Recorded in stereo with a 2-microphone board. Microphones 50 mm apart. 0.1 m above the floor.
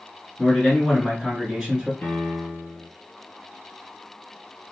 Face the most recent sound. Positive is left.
turn(degrees=45)  # may be behind; listen again after turning